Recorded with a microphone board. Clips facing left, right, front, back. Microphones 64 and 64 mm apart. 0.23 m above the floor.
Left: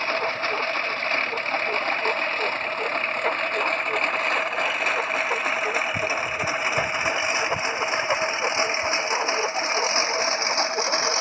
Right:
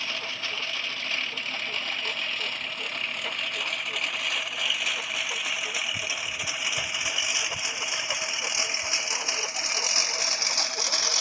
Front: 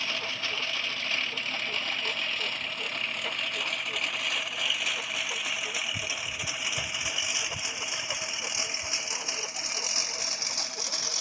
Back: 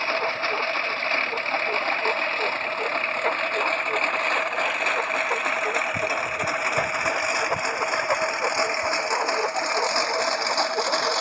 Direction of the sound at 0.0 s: 135° left.